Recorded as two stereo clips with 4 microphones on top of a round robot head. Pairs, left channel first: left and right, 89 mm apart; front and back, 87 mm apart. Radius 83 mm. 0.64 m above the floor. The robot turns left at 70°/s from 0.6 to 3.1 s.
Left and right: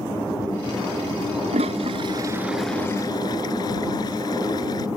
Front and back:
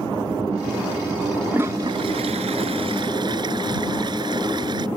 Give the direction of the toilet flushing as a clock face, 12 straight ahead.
3 o'clock.